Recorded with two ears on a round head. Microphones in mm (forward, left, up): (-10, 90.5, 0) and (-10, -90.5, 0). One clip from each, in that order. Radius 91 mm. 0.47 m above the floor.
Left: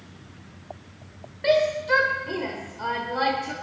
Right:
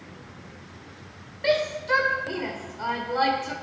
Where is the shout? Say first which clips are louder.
Left 3 dB; 10° right (ahead or behind), 1.4 m.